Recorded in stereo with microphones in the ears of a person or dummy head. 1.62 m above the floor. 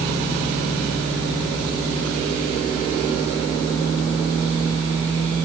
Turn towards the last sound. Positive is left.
No sound to turn to.